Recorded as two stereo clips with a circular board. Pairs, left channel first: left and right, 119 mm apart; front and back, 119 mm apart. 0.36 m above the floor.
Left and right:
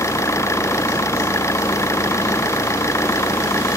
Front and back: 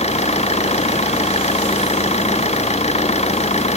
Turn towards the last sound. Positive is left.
turn(degrees=25)